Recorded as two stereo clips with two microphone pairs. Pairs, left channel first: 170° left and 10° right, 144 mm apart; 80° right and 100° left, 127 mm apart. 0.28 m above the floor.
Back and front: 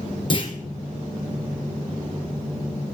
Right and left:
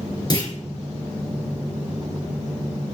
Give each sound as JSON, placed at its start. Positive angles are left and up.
{"t": 0.3, "sound": "a clunk", "azimuth_deg": -135, "distance_m": 3.5}